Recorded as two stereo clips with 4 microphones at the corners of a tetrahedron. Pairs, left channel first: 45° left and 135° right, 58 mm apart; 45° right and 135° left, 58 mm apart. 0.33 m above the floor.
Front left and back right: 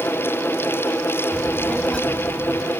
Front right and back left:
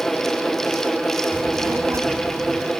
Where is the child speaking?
115° left, 1.1 m; by 2.7 s 110° left, 1.9 m.